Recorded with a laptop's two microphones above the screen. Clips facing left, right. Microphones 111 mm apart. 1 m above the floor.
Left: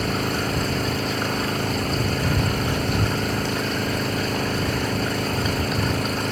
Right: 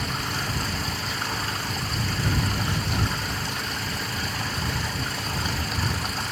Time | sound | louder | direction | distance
0.0 | an engine running | left 7 dB | 55° left (ahead or behind) | ?